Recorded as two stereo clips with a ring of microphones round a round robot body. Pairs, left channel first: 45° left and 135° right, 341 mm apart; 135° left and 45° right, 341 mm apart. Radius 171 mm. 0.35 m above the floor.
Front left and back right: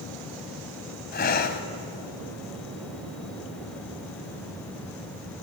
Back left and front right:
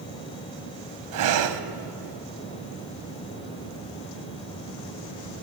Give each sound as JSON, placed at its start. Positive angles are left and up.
{"t": 1.1, "sound": "breathing", "azimuth_deg": -15, "distance_m": 1.7}